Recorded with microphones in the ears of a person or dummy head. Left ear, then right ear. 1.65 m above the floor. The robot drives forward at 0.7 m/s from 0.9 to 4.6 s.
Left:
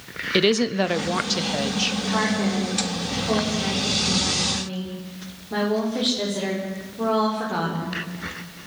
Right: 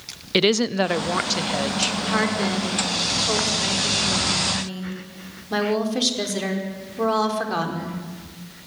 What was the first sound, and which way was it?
A woman speaking, 10° right (ahead or behind).